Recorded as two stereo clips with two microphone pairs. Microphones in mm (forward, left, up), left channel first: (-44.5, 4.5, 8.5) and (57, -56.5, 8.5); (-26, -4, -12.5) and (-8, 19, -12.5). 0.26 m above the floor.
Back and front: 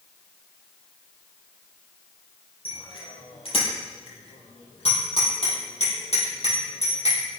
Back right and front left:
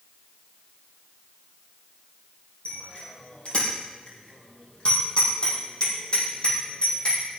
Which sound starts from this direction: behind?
A bicycle bell, at 2.6 s.